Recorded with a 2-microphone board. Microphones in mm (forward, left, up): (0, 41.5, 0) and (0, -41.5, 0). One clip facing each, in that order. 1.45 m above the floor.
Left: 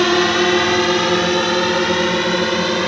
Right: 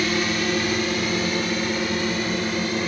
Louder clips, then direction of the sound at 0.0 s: Left 9 dB; 85° left.